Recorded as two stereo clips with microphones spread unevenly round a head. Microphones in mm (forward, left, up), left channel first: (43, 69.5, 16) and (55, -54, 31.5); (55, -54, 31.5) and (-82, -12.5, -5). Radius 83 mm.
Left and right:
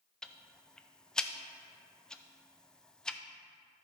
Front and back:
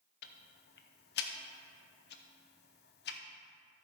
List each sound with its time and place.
0.2 s ticking: 15° left, 0.6 m